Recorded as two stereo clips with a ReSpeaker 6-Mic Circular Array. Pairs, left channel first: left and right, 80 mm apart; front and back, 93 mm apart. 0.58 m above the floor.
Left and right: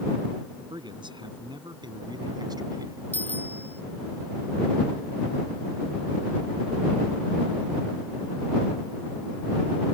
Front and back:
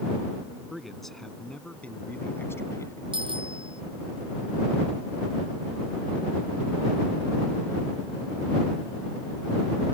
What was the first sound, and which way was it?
A man speaking, 90° right.